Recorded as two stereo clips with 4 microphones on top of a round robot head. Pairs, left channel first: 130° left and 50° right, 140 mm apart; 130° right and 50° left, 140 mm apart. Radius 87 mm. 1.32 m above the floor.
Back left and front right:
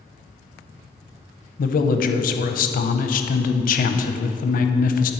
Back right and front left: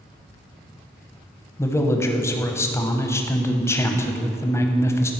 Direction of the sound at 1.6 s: 160° left.